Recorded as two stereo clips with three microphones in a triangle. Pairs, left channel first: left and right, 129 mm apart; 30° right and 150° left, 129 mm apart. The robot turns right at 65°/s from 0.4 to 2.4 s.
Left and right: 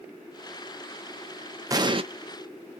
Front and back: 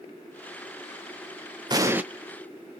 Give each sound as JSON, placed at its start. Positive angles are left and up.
{"t": 1.7, "sound": "an explosion", "azimuth_deg": -150, "distance_m": 0.6}